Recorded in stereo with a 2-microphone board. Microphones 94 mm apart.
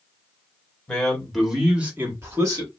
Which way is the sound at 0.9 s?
10° left (ahead or behind).